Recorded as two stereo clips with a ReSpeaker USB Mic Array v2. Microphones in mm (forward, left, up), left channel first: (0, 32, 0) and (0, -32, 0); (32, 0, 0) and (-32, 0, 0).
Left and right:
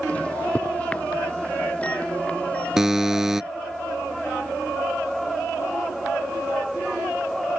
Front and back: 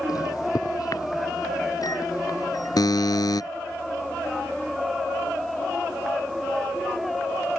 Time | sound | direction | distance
0.1 | a microwave | 20° left | ?
2.8 | a buzzer | 10° right | ?